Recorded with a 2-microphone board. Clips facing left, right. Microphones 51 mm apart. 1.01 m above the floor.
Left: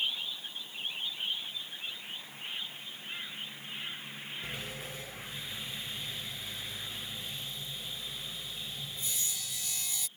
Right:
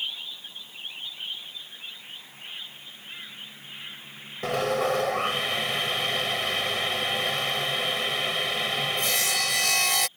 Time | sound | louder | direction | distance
4.4 | sawing | right 21 dB | 80° right | ?